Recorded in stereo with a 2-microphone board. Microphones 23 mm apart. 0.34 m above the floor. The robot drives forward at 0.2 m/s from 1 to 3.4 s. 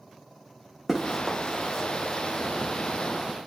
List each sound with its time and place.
0.9 s running footsteps: 5° right (ahead or behind), 1.3 m; by 2.7 s 40° left (ahead or behind), 1.5 m